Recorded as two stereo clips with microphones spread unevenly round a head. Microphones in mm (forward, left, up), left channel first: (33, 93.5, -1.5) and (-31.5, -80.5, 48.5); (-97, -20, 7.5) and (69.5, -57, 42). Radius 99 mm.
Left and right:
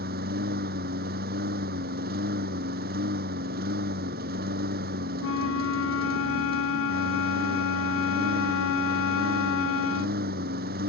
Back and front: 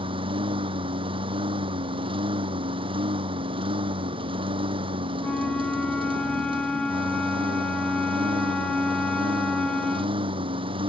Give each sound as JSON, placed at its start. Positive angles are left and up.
{"t": 0.0, "sound": "a lawn mower", "azimuth_deg": -70}
{"t": 5.2, "sound": "a flute", "azimuth_deg": 80}